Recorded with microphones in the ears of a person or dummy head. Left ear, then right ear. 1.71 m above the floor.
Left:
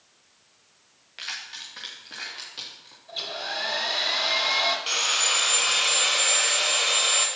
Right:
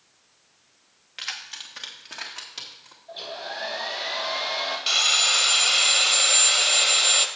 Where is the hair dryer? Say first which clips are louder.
Left 3 dB; 20° left (ahead or behind), 2 m.